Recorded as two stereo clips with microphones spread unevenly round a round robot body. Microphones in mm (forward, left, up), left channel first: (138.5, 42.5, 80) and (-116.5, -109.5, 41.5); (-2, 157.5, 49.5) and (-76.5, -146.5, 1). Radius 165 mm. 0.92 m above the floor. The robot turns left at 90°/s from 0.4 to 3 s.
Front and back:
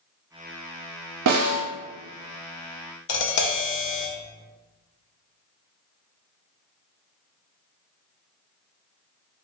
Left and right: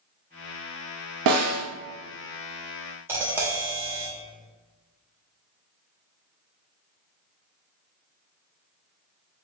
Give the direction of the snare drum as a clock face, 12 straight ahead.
4 o'clock.